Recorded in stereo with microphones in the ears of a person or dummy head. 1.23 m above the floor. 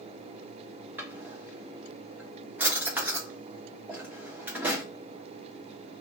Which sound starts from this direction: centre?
A drawer, at 1.0 s.